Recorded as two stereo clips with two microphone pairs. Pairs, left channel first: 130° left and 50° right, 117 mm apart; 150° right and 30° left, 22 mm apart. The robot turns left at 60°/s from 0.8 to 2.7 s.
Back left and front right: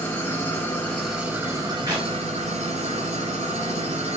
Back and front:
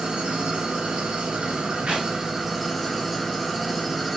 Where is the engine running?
60° left, 2.5 m; by 4.2 s 55° right, 2.5 m.